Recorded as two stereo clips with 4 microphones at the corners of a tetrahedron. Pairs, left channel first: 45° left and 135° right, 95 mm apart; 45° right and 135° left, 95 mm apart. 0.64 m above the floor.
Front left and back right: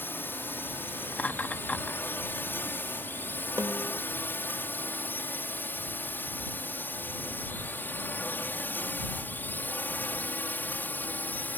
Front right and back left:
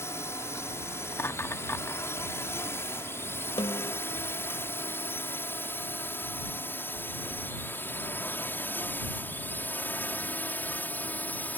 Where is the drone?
5° right; by 11.6 s straight ahead.